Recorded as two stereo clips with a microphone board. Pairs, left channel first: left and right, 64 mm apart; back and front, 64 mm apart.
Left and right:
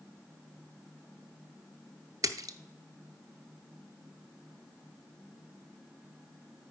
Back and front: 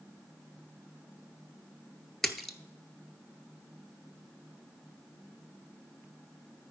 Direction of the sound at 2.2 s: 95° right.